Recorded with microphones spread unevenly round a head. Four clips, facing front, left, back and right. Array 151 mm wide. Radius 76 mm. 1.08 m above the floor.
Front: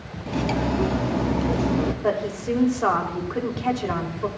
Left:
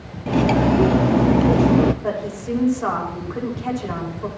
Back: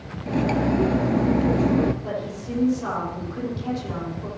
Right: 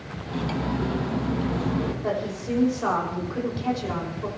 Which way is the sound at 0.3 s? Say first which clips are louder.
Left 11 dB, back 2 dB; 85° left.